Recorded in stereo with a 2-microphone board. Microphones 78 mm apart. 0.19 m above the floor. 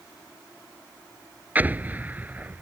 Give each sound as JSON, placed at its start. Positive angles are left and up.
{"t": 1.6, "sound": "an explosion", "side_deg": -20}